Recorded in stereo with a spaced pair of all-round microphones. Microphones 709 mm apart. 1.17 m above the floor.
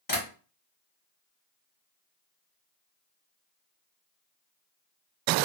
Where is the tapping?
30° left (ahead or behind), 1.6 m.